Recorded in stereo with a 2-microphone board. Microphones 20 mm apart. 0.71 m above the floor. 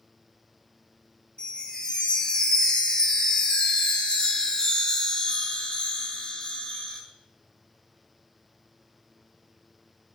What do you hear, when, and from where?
1.4 s a chime: 45° left (ahead or behind), 1.1 m